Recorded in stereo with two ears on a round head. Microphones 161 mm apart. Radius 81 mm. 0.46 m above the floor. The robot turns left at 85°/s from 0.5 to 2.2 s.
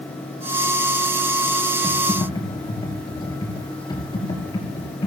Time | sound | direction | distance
1.8 | typing on a keyboard | 175° right | 5 m